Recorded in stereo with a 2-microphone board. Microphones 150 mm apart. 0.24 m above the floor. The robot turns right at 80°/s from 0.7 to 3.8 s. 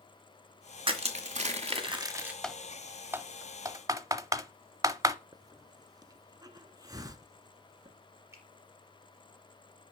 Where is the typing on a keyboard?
5° left (ahead or behind), 0.6 m; by 5.2 s 20° right (ahead or behind), 0.6 m.